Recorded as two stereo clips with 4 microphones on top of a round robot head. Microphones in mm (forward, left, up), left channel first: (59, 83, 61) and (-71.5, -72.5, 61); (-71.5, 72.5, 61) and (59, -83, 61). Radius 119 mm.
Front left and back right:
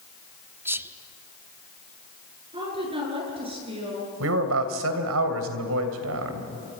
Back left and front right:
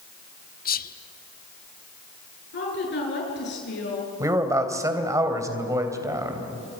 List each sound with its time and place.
0.7 s whispering: 155° left, 1.2 m
2.5 s a woman speaking: 165° left, 10 m
4.2 s a man speaking: 125° right, 3 m